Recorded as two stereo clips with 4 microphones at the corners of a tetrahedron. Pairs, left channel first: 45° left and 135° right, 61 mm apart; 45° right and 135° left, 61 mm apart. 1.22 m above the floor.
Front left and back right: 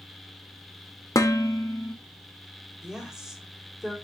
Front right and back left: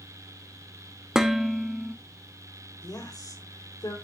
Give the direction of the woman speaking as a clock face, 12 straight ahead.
2 o'clock.